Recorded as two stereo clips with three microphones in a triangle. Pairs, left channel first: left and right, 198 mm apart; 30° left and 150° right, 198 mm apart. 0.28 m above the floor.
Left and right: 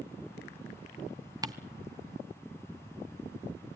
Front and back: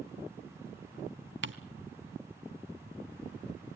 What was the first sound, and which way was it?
Ticking, 165° right.